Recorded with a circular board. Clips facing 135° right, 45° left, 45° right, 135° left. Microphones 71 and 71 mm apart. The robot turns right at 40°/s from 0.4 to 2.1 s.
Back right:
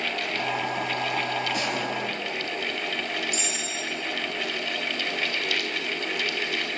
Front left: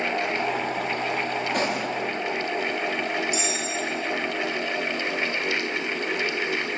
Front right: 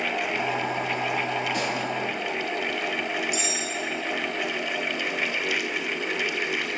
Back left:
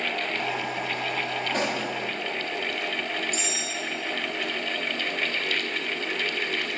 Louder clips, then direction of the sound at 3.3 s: Front left 4 dB, front right 2 dB; 175° left.